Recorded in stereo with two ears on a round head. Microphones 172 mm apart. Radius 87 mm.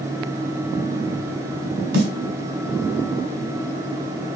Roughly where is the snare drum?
Right.